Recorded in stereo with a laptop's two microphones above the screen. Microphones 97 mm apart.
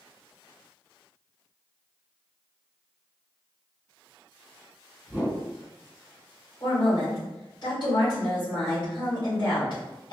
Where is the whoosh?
20° right (ahead or behind), 1.4 m.